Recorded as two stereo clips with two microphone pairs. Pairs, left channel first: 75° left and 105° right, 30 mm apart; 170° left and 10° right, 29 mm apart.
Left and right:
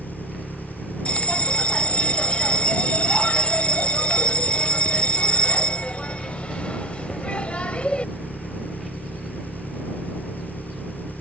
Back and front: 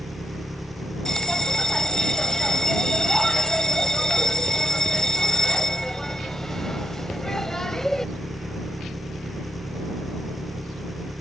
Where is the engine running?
80° left.